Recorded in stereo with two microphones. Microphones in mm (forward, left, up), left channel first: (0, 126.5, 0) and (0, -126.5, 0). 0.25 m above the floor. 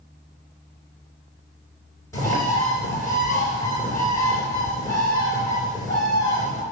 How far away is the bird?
About 3.5 m.